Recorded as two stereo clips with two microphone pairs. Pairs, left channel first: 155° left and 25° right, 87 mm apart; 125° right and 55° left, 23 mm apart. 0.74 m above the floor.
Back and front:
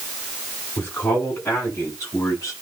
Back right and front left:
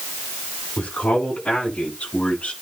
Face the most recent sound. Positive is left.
turn(degrees=-150)